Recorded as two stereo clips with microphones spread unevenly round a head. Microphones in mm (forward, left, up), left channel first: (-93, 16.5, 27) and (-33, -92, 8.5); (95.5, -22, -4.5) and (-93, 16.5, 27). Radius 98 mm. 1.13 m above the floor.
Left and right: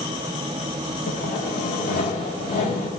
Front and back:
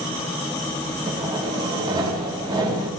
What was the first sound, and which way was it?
Sawing, 95° left.